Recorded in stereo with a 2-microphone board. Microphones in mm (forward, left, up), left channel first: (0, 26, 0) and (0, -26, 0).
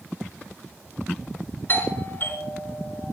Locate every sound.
1.7 s a doorbell: 40° left (ahead or behind), 5 m